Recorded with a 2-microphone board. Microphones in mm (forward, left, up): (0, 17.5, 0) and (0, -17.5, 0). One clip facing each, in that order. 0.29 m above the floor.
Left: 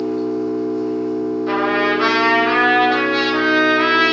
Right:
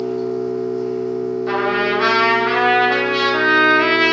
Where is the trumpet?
Centre (ahead or behind), 0.7 m.